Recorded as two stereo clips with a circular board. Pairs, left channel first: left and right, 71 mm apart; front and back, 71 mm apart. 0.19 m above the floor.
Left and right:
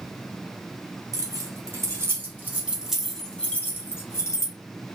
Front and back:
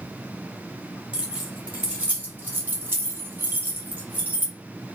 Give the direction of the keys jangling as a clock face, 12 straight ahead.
4 o'clock.